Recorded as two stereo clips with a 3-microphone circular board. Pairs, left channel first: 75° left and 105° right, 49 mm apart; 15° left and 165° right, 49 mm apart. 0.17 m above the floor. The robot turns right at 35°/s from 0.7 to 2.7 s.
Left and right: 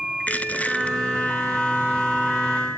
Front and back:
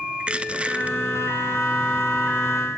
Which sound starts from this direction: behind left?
Crushing, at 0.2 s.